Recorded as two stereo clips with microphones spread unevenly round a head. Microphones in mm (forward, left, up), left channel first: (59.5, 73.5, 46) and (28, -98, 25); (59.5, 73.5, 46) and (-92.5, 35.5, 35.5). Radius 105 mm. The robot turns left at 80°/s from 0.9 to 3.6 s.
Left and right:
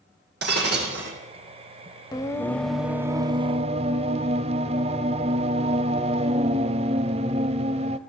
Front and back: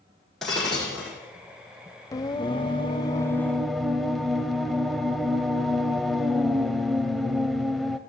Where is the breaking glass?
75° right, 5.5 m; by 1.1 s 90° right, 5.5 m.